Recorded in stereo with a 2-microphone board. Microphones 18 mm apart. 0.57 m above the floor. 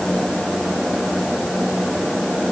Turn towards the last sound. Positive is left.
No sound to turn to.